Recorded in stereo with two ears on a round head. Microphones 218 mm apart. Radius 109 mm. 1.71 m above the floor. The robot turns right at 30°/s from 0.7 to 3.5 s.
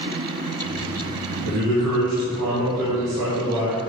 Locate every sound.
1.4 s a man speaking: 120° right, 1.9 m; by 3.8 s 60° right, 1.9 m